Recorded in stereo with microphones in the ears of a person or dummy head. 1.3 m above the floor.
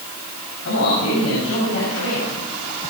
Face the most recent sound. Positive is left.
turn(degrees=75)  # may be behind; listen again after turning